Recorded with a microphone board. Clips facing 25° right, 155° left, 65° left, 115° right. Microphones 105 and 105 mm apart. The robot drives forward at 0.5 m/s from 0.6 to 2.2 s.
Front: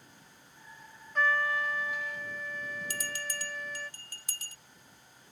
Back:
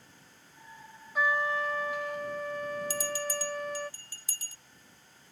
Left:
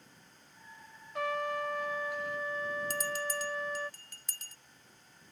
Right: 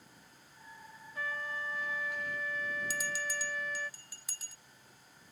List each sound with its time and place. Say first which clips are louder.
1.1 s a trumpet: back 1 dB, left 7 dB; 75° left; by 3.9 s 125° left
2.9 s a bell: back 6 dB, left 3 dB; 25° right